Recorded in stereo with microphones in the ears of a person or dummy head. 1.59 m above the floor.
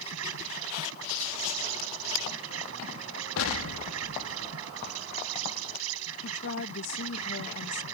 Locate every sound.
0.0 s an insect: 80° right
3.4 s an explosion: 75° left (ahead or behind)
6.2 s a woman speaking: 55° left (ahead or behind)